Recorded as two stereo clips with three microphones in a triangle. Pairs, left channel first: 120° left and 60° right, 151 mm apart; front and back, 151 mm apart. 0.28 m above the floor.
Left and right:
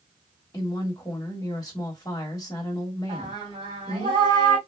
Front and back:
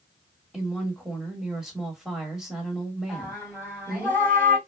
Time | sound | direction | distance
0.5 | a woman speaking | 100° left | 1.6 m
3.1 | singing | 105° right | 2.5 m